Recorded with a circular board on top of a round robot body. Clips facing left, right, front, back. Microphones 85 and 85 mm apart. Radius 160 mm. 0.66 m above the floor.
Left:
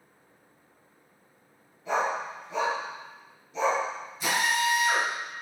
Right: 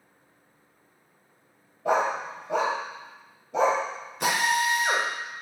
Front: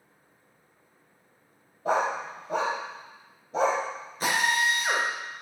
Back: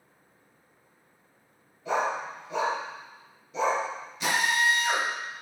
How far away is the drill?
About 1.7 m.